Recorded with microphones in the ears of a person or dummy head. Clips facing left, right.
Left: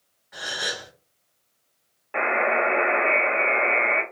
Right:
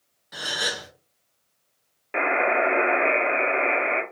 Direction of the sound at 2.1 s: 25° right (ahead or behind).